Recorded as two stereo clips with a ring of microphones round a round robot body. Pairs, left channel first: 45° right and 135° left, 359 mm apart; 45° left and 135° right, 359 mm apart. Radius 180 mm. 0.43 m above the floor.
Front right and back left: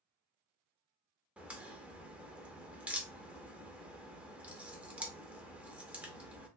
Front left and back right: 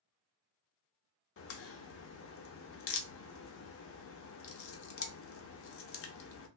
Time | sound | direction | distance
1.4 | a crack | 50° left | 0.5 m